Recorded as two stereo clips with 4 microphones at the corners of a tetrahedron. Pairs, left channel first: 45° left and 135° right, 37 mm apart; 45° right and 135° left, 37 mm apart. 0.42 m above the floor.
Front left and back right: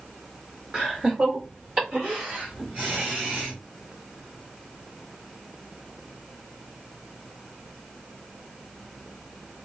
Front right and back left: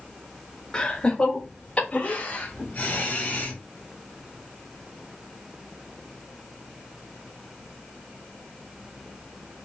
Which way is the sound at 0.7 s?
100° right.